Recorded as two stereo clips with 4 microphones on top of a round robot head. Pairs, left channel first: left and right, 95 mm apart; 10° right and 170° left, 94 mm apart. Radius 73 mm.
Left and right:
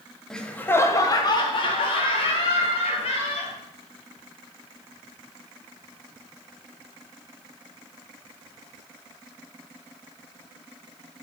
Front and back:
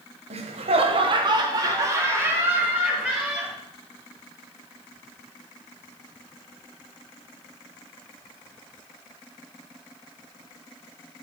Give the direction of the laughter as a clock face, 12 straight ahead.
6 o'clock.